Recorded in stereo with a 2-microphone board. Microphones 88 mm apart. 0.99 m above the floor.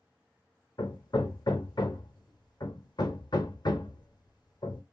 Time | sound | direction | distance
0.8 | hammering | 55° left (ahead or behind) | 0.8 m